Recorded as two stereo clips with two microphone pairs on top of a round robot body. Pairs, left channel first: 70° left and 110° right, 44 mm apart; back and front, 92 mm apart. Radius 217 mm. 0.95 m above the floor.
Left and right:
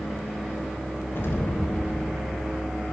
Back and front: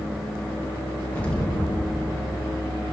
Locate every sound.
1.1 s an explosion: 105° left, 0.8 m